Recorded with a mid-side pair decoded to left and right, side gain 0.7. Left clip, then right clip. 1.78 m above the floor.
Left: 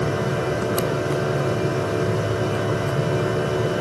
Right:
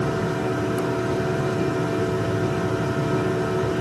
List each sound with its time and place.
0.0 s a machine running: 20° left, 6.5 m